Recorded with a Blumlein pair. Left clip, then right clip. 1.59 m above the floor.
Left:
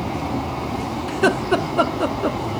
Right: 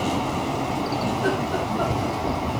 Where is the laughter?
50° left, 1.1 m.